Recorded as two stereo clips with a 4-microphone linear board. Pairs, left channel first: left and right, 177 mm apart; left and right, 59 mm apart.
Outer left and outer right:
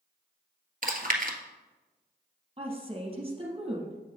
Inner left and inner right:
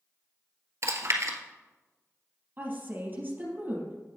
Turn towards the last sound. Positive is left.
turn(degrees=-30)  # may be behind; listen again after turning